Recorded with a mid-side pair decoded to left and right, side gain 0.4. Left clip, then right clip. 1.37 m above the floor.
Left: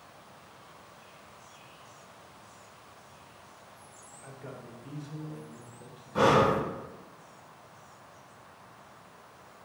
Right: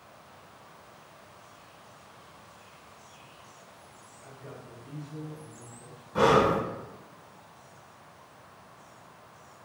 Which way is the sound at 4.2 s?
65° left.